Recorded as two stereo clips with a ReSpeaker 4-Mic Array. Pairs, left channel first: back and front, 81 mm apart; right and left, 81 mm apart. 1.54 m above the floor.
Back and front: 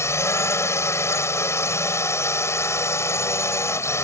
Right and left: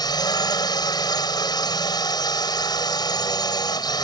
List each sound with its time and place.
0.0 s a drone: 125° right